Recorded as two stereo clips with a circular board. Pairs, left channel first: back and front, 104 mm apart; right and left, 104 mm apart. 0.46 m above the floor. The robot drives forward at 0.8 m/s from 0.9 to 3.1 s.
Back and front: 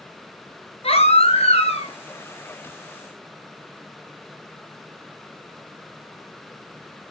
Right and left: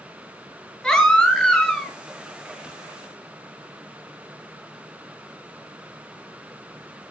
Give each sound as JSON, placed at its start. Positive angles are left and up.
{"t": 0.8, "sound": "a baby crying", "azimuth_deg": -175, "distance_m": 2.5}